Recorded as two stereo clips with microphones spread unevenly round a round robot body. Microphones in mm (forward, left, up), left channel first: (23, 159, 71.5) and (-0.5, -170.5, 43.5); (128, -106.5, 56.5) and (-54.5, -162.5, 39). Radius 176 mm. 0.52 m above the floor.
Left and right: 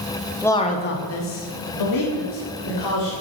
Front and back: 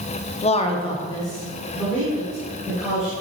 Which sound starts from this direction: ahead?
A man speaking, at 0.4 s.